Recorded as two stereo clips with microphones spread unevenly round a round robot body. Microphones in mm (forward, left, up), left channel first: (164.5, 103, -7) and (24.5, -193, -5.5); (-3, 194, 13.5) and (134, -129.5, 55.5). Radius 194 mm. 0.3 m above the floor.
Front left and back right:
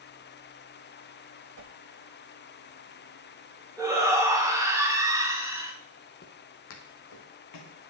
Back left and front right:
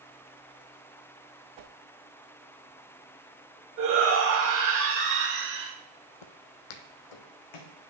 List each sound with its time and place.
1.6 s a whoosh: 75° right, 0.6 m
3.8 s a shout: 40° right, 2.5 m
6.2 s footsteps: 130° left, 0.7 m; by 7.8 s 110° left, 1.8 m